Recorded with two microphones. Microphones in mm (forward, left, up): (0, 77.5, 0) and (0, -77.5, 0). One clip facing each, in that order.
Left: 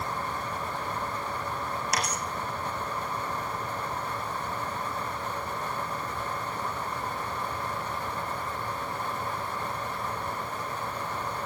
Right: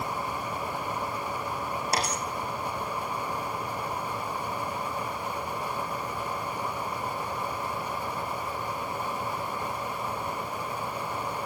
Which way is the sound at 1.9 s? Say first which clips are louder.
Right 3 dB; 30° right (ahead or behind).